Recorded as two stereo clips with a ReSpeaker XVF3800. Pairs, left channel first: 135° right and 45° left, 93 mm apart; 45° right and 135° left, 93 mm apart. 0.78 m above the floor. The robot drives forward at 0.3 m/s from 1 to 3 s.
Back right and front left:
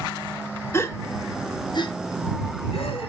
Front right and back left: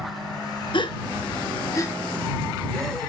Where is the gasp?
75° right, 0.5 m; by 3.1 s 130° right, 0.7 m.